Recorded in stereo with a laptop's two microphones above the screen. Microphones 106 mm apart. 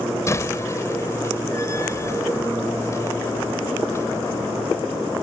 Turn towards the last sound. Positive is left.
turn(degrees=30)  # may be behind; listen again after turning